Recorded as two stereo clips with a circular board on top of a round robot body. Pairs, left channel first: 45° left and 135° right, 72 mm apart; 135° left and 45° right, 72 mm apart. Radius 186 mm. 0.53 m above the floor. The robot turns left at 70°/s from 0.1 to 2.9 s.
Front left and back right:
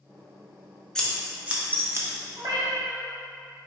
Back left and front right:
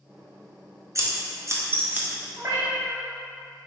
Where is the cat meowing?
100° right, 0.9 m; by 3.0 s 135° right, 0.9 m.